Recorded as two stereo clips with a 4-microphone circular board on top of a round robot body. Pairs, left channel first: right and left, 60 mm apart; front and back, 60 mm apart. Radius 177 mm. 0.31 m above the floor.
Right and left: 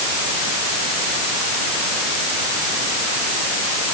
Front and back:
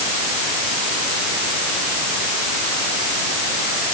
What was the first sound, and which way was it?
Only background noise.